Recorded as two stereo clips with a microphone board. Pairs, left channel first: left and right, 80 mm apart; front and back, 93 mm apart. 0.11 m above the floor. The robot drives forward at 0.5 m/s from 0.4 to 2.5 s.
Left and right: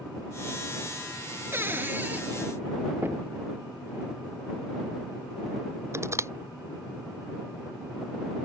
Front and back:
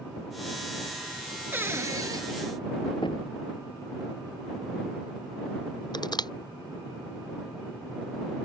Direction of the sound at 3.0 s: 30° right.